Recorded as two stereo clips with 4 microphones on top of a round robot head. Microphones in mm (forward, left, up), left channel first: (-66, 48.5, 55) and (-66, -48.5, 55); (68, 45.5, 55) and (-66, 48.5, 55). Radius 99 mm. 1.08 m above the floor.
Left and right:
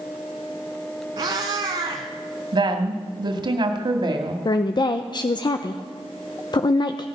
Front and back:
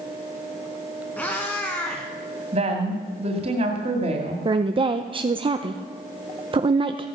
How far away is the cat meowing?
About 1.1 m.